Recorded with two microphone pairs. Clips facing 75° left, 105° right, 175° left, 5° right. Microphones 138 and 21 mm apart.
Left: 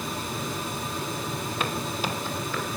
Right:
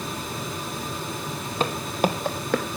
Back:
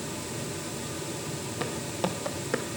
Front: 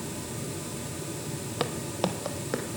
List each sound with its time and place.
1.6 s footsteps: 55° right, 1.1 m; by 2.6 s 100° right, 1.5 m